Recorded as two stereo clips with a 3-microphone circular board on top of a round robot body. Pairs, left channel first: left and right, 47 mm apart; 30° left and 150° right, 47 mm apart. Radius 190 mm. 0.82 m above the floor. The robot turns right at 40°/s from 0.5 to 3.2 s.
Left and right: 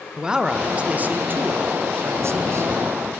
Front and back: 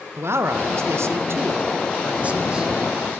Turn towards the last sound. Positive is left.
turn(degrees=-55)